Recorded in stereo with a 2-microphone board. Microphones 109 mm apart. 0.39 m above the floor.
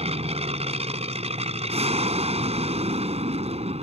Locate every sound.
0.0 s an aircraft: 70° right (ahead or behind)